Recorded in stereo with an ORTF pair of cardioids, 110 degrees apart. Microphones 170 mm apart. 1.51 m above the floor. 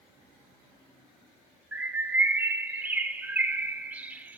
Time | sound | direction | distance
1.7 | a bird | 10° right | 0.9 m